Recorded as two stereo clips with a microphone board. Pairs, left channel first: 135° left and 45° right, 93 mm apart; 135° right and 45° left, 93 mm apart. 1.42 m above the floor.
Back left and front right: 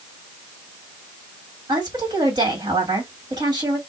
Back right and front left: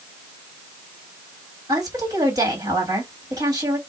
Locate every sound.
1.7 s a woman speaking: 5° right, 2 m